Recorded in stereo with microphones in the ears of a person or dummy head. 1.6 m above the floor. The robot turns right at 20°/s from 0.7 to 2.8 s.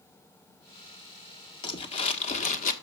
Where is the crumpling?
30° left (ahead or behind), 1.3 m; by 2.7 s 50° left (ahead or behind), 1.3 m.